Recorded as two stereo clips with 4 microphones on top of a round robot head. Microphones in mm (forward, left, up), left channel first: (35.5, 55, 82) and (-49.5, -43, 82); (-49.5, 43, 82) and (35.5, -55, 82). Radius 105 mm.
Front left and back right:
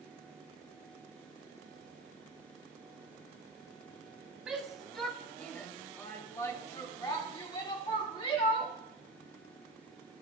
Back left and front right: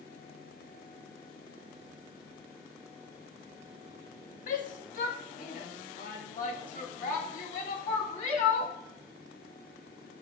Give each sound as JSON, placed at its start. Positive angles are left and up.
{"t": 4.5, "sound": "a shout", "azimuth_deg": 145, "distance_m": 1.8}